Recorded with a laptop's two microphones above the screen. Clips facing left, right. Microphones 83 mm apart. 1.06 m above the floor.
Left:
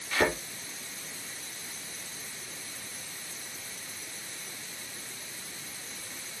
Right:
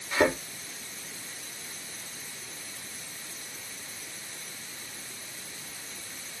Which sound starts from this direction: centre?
A thud, at 0.1 s.